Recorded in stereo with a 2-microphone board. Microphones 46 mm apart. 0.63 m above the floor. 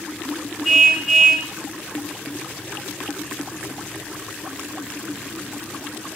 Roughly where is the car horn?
Centre.